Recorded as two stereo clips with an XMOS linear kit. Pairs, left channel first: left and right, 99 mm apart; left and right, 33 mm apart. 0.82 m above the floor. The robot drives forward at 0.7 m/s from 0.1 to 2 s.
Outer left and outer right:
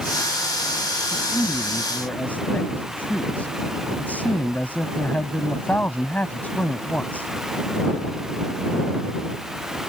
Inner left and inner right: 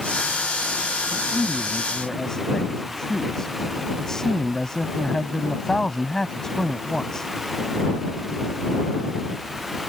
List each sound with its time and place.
1.1 s a man speaking: 15° left (ahead or behind)